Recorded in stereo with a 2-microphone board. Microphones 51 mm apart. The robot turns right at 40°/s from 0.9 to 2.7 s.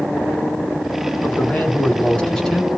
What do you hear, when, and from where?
1.2 s a man speaking: 110° left, 1.5 m; by 2.7 s 165° left, 1.5 m